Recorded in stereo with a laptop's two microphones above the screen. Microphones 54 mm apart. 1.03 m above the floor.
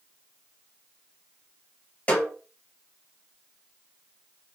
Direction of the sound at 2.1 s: 25° left (ahead or behind).